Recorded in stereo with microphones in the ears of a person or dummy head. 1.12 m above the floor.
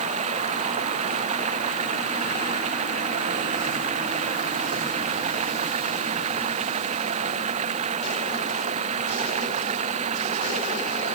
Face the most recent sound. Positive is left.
turn(degrees=-35)  # may be behind; listen again after turning